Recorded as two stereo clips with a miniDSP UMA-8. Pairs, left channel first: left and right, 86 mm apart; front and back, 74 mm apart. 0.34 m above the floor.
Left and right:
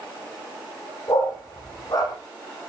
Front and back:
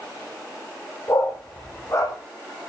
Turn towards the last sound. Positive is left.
turn(degrees=50)